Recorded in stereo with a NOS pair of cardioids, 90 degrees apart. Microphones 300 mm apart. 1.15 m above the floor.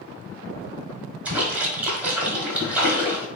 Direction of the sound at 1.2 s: 5° right.